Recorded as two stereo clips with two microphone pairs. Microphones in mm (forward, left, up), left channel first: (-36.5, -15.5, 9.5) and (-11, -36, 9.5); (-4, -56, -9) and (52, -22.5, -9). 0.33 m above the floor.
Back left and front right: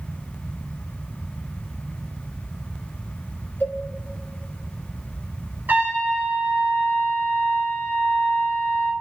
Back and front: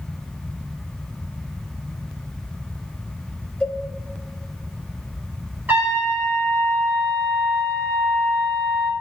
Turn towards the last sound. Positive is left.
turn(degrees=-30)